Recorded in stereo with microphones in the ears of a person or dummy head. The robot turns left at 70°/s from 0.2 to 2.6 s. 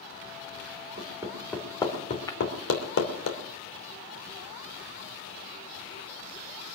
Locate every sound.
1.0 s hammering: 30° right (ahead or behind), 2.5 m; by 3.3 s 75° left (ahead or behind), 2.5 m
2.3 s breaking glass: 20° left (ahead or behind), 0.8 m; by 2.4 s 30° left (ahead or behind), 0.8 m